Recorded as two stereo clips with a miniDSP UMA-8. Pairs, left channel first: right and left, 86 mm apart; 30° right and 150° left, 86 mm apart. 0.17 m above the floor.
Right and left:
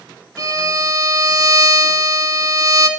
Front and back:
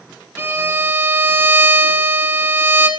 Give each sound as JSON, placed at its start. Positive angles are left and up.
{"t": 0.4, "sound": "a violin", "azimuth_deg": 100, "distance_m": 0.6}